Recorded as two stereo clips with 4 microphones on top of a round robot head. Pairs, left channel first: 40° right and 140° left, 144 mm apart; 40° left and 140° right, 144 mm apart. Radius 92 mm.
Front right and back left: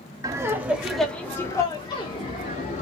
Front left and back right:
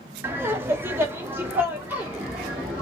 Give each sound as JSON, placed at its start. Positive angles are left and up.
{"t": 0.2, "sound": "laughter", "azimuth_deg": 170, "distance_m": 0.9}